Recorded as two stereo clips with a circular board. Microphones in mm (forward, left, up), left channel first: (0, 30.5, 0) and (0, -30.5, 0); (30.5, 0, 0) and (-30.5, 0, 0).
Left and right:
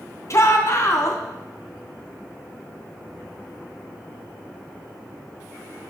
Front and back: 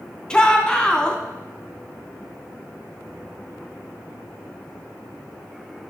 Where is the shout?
70° left, 2.5 m.